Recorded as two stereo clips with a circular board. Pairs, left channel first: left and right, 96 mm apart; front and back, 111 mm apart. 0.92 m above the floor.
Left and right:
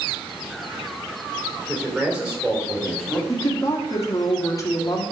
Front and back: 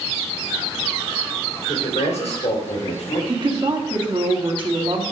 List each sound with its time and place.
1.7 s a man speaking: 15° right, 3 m; by 3.2 s 5° left, 2 m
3.3 s a woman speaking: 145° left, 1.7 m